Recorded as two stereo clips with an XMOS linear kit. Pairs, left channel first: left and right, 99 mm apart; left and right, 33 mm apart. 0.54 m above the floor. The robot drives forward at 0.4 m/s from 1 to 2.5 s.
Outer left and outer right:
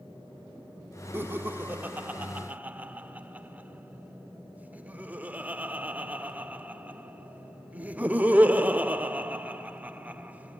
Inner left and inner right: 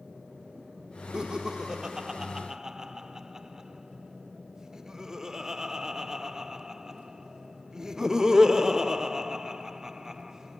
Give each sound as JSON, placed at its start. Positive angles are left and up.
{"t": 1.1, "sound": "laughter", "side_deg": -20, "distance_m": 1.0}